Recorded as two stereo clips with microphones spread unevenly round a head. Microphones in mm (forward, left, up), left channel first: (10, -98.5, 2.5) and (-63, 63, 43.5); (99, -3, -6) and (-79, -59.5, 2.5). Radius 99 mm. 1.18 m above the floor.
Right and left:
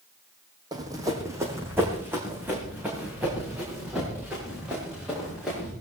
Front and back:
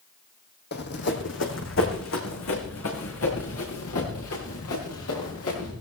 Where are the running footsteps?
50° left, 2.5 m; by 5.7 s 30° left, 8.5 m.